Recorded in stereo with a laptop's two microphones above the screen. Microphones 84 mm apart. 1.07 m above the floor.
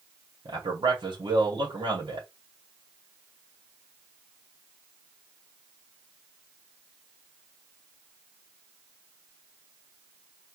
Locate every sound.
0.5 s a man speaking: 80° right, 2 m